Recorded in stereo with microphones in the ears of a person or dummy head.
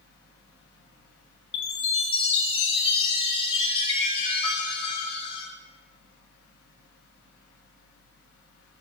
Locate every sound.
0.0 s a fan: 80° left, 4 m
1.5 s a chime: 35° left (ahead or behind), 1.9 m